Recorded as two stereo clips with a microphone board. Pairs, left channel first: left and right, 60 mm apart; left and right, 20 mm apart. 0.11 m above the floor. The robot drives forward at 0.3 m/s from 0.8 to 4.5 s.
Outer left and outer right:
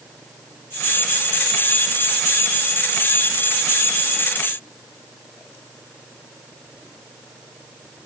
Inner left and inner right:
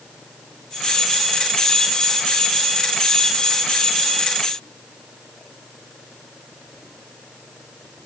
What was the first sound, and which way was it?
Only background noise.